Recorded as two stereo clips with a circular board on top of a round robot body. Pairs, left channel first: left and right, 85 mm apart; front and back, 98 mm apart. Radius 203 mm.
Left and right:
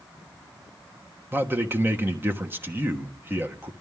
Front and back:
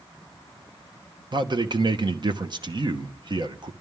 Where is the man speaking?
150° right, 1.2 m.